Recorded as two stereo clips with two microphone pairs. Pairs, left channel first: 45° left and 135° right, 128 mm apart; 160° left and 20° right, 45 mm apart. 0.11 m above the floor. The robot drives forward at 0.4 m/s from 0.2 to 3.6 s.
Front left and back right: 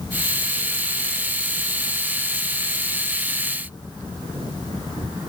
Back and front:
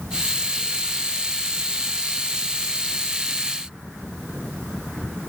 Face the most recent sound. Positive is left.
No sound to turn to.